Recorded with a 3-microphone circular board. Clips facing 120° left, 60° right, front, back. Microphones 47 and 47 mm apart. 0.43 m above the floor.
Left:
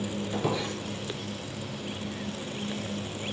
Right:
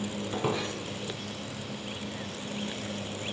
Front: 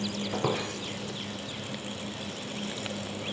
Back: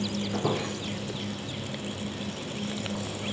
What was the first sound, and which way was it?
A squeak, 10° left.